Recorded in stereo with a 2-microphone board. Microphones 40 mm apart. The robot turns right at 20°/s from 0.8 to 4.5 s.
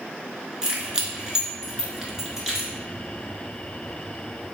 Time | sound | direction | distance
0.6 | keys jangling | 20° right (ahead or behind) | 0.8 m